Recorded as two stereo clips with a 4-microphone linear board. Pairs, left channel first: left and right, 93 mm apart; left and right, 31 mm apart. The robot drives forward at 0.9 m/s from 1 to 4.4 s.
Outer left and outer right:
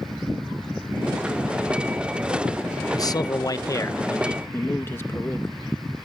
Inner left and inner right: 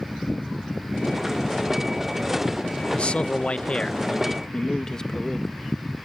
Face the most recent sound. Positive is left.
turn(degrees=25)  # may be behind; listen again after turning